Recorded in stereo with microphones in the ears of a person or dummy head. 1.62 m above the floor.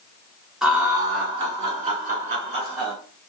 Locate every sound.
0.6 s laughter: 5° right (ahead or behind), 1.1 m; by 2.9 s 50° right (ahead or behind), 2.5 m